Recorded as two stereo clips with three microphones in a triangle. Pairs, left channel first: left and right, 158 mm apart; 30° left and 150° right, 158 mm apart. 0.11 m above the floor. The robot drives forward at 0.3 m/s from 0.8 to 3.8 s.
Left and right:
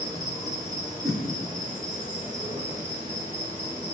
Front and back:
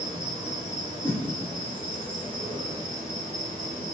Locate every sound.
0.0 s an insect: 130° right, 1.9 m; by 3.9 s 155° right, 2.5 m
1.0 s a whoosh: 5° right, 0.6 m; by 1.2 s 10° right, 0.6 m